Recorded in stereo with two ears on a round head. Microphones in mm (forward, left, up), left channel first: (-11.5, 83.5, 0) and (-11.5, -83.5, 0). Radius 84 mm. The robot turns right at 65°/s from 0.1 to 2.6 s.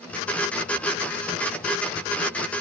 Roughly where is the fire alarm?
I don't hear a fire alarm.